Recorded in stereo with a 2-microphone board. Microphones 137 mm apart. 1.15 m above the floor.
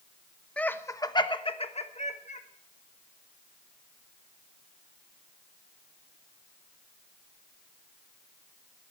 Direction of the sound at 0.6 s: 10° left (ahead or behind).